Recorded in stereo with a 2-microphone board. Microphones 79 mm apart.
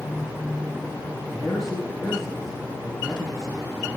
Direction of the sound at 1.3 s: 5° left (ahead or behind).